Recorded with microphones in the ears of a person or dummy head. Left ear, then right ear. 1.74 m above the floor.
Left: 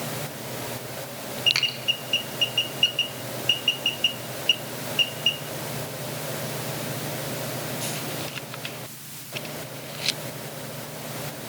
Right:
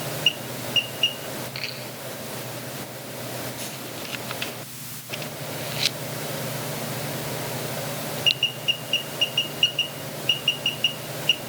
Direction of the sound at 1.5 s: 60° left (ahead or behind).